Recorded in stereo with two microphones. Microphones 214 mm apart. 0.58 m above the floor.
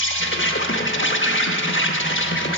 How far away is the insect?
About 0.8 m.